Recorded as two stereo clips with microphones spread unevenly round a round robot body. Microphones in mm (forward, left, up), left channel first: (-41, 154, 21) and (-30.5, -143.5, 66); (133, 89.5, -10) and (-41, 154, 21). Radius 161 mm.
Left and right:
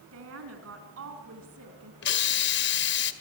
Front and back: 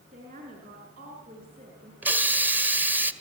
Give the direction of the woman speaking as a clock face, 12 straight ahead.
4 o'clock.